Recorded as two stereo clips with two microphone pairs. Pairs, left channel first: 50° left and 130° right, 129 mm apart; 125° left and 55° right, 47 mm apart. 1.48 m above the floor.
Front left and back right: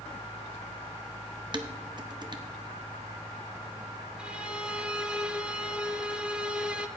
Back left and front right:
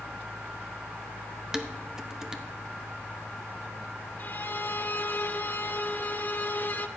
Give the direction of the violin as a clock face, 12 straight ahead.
7 o'clock.